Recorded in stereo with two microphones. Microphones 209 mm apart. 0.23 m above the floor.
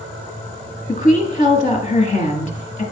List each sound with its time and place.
0.9 s a woman speaking: 35° left (ahead or behind), 1.6 m